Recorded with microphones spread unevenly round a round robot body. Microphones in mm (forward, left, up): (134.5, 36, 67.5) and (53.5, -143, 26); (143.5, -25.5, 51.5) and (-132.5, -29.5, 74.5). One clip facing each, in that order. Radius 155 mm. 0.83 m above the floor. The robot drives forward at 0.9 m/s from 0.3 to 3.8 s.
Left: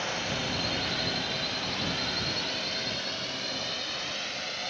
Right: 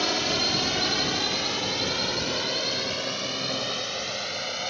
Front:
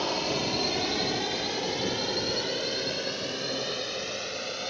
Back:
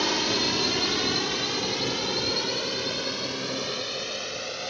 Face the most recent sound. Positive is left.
turn(degrees=-90)